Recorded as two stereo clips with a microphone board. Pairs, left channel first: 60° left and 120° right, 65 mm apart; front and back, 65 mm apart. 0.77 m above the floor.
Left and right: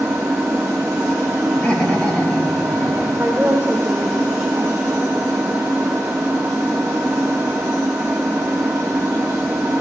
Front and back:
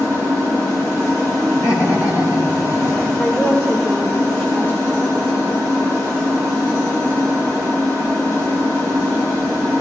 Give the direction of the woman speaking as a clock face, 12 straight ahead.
2 o'clock.